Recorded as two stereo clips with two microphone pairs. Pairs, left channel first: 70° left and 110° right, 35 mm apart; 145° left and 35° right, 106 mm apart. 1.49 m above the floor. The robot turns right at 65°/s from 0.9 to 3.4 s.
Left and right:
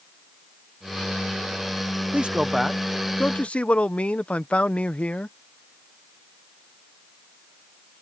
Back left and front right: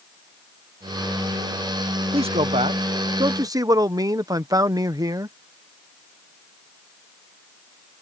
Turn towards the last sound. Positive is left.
turn(degrees=20)